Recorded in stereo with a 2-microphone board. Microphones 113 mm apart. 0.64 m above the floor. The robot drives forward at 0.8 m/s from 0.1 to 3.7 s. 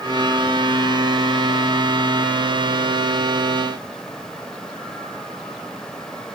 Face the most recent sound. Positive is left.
No sound to turn to.